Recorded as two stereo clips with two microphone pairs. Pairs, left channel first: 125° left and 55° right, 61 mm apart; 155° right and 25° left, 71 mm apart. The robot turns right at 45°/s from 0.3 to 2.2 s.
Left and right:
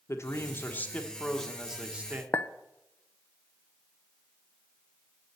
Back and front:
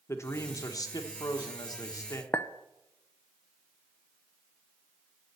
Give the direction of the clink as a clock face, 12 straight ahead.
7 o'clock.